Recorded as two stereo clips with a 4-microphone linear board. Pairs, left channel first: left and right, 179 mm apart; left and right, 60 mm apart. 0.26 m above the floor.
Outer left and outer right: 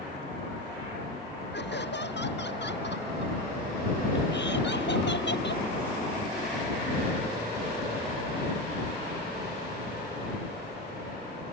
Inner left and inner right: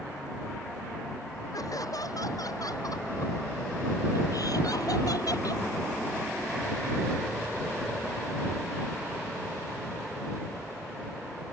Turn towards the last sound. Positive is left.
turn(degrees=80)